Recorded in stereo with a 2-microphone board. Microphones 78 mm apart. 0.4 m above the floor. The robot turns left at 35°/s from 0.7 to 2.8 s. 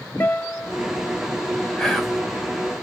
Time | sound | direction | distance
0.2 | a guitar | 25° left (ahead or behind) | 0.6 m
1.8 | whispering | 10° left (ahead or behind) | 1.4 m